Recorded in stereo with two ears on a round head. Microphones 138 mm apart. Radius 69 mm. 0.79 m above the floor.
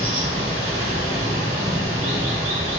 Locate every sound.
0.0 s running water: 40° right (ahead or behind), 1.5 m